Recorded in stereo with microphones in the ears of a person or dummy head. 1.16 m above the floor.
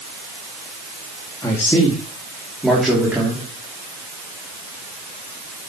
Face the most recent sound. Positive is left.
turn(degrees=-10)  # may be behind; listen again after turning